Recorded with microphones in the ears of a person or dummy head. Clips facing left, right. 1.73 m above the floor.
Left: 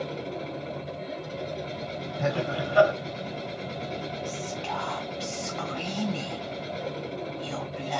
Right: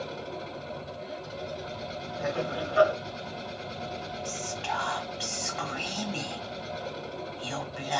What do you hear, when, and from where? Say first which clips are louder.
0.0 s a machine running: left 4 dB; 35° left (ahead or behind), 1.8 m
2.2 s laughter: left 3 dB; 60° left (ahead or behind), 1.7 m
4.2 s whispering: left 2 dB; 10° right (ahead or behind), 1.2 m